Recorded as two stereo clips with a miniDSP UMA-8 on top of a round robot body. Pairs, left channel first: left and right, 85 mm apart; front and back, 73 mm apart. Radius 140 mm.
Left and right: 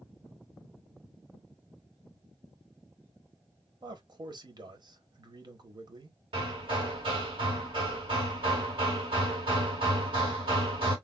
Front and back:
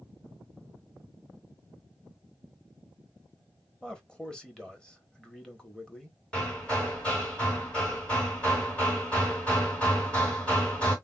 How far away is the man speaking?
About 1.3 m.